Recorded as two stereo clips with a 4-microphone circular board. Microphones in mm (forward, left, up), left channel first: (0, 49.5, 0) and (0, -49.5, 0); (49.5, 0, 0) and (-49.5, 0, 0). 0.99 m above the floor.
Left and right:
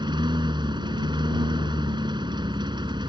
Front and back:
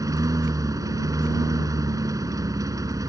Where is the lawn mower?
125° right.